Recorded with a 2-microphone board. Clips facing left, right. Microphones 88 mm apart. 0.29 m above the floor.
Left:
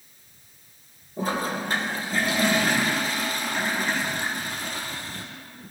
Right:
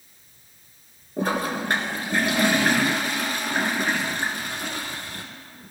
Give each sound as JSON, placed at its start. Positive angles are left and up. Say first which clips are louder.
{"t": 1.2, "sound": "a toilet flushing", "louder": "right 2 dB", "side_deg": -65, "distance_m": 1.9}